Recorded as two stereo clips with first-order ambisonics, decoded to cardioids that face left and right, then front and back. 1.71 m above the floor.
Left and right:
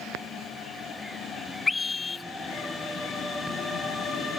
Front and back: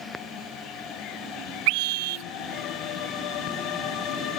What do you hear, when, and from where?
1.7 s a scream: 165° left